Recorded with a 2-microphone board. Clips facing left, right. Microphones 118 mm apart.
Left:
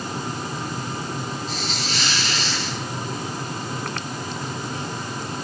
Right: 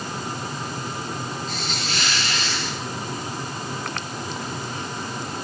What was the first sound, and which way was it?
A hiss, 5° left (ahead or behind).